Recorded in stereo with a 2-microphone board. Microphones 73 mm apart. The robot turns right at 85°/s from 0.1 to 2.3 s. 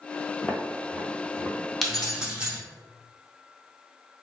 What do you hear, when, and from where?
0.4 s footsteps: 10° left (ahead or behind), 0.8 m; by 1.6 s 55° right (ahead or behind), 1.3 m
1.8 s keys jangling: 5° left (ahead or behind), 0.7 m; by 2.6 s 10° right (ahead or behind), 0.7 m